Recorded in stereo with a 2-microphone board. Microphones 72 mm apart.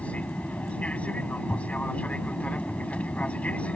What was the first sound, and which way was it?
An aircraft, 20° left (ahead or behind).